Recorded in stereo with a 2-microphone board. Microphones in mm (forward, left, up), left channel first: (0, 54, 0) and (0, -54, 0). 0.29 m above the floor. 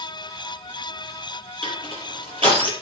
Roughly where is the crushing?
Right.